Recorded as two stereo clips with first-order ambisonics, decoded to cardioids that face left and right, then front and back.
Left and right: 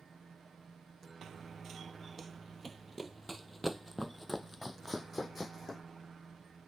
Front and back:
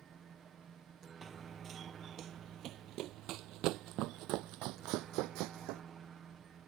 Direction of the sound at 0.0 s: 145° right.